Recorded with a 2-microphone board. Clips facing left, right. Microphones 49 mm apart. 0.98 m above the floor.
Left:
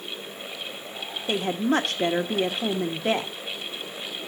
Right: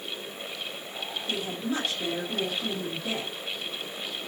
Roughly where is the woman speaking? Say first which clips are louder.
Left 8 dB; left.